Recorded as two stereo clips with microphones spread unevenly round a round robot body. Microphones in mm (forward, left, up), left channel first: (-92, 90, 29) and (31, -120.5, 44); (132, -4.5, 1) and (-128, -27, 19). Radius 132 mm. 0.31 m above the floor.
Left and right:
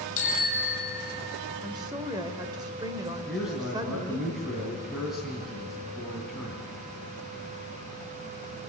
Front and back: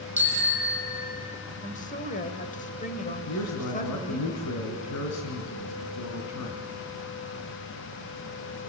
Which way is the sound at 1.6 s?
5° left.